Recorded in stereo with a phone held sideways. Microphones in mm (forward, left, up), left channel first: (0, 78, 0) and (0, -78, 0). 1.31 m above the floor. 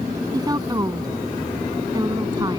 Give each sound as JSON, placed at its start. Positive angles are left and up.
{"t": 0.3, "sound": "a woman speaking", "side_deg": -25}